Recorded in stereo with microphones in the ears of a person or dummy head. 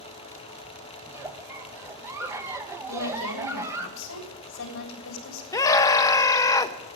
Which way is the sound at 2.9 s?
70° left (ahead or behind).